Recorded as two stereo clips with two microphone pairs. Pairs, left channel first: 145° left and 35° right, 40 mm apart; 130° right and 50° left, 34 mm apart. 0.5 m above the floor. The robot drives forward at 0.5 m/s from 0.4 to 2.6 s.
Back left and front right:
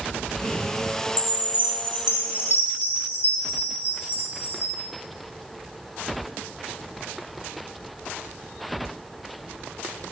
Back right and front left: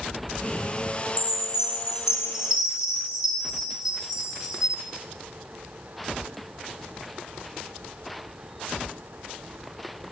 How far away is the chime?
About 3 m.